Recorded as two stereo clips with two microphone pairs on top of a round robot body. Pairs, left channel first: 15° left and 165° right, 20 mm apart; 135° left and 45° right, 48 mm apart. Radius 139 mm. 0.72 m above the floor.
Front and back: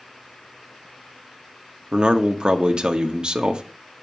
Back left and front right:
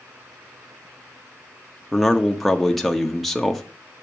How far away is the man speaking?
About 1.2 m.